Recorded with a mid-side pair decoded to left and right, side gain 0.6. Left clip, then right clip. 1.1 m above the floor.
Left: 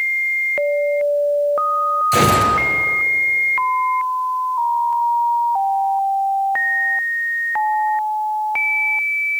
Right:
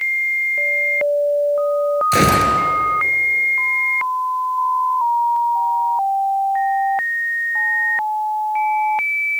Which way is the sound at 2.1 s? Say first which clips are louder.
Even; 15° right.